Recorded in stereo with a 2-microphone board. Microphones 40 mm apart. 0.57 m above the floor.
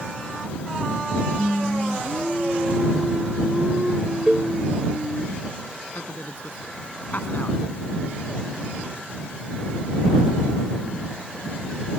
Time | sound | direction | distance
1.4 | singing | 25° right (ahead or behind) | ?
4.3 | a cowbell | 20° right (ahead or behind) | ?
6.0 | a man speaking | 55° left (ahead or behind) | ?